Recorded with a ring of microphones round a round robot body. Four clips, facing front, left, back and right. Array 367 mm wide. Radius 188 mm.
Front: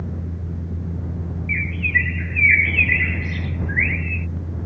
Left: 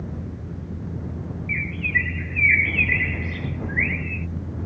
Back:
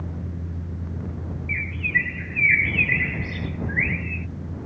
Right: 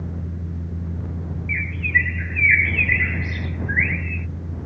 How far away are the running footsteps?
I don't hear running footsteps.